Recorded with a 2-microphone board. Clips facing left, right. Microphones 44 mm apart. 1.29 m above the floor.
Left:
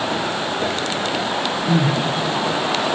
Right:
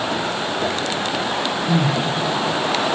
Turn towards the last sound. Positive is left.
turn(degrees=20)  # may be behind; listen again after turning